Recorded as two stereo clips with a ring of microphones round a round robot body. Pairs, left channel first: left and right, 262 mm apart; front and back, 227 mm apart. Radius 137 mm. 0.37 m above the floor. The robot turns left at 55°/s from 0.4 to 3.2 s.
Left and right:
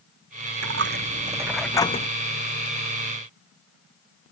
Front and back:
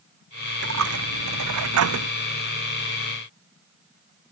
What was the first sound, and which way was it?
A dropped coin, 130° right.